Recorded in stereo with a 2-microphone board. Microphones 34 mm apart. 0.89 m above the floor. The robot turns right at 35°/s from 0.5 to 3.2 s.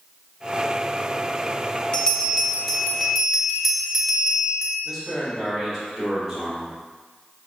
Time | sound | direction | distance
1.9 | a bell | 140° left | 0.7 m
4.8 | a man speaking | centre (ahead or behind) | 1.7 m